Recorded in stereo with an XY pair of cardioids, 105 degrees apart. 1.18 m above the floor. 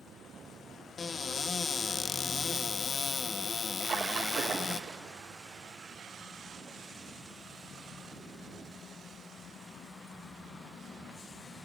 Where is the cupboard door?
40° left, 1.0 m.